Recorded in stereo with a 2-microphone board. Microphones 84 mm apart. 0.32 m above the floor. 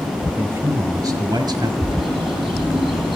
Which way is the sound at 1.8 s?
85° right.